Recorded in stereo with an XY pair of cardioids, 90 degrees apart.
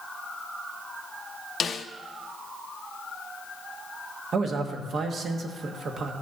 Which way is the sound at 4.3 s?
60° right.